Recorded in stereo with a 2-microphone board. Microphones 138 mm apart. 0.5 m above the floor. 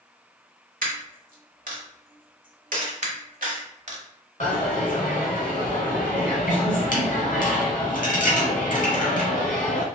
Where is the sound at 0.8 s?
75° right (ahead or behind), 1.1 m.